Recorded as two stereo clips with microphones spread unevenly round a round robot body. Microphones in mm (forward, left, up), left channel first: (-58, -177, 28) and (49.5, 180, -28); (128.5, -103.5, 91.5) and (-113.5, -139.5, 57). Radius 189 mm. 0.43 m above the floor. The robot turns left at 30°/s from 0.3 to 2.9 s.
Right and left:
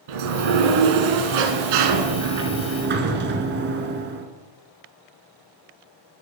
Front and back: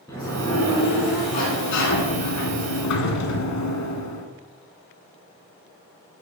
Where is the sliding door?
85° left, 0.9 m; by 4.3 s 10° left, 0.9 m.